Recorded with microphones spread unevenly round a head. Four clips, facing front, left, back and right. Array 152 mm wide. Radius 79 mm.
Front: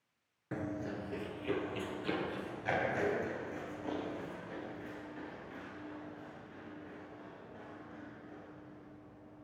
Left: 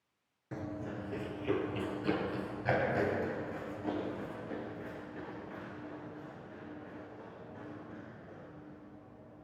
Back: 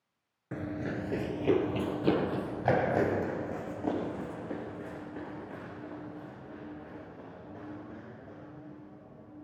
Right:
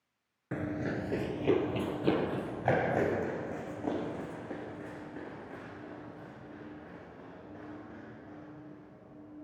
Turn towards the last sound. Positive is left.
turn(degrees=-160)